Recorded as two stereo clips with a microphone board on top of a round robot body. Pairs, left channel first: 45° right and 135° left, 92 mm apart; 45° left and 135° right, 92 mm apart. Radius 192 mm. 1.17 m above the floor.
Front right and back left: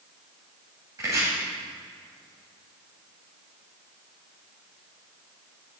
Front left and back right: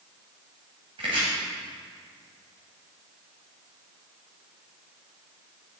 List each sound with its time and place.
1.0 s chopping: 165° right, 1.4 m